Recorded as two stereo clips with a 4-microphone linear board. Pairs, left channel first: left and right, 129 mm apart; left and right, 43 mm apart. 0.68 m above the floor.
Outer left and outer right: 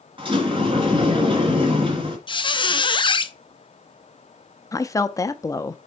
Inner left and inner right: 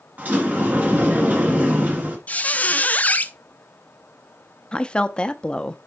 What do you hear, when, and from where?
0.2 s a sliding door: 40° right (ahead or behind), 2 m
2.3 s a squeak: 35° left (ahead or behind), 0.5 m
4.7 s a woman speaking: 25° left (ahead or behind), 0.6 m